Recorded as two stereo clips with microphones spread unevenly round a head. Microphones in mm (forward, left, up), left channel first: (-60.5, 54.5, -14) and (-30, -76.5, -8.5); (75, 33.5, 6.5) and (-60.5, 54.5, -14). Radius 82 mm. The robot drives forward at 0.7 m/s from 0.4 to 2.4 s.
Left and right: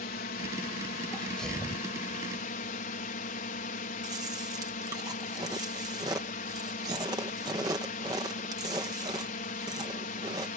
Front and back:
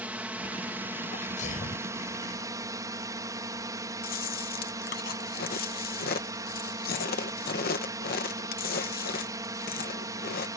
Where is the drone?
95° left; by 10.6 s 110° left.